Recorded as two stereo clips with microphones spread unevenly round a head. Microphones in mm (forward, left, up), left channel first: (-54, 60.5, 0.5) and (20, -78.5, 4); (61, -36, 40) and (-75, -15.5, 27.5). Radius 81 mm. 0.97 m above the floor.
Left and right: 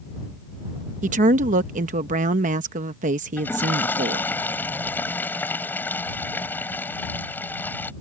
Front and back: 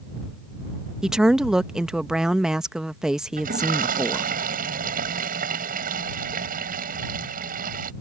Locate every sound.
1.0 s a woman speaking: 105° right
3.4 s a toilet flushing: 165° right